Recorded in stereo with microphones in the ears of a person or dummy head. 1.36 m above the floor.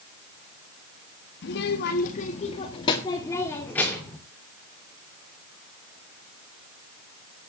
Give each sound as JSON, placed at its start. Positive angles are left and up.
{"t": 1.4, "sound": "a child speaking", "side_deg": 70, "distance_m": 1.6}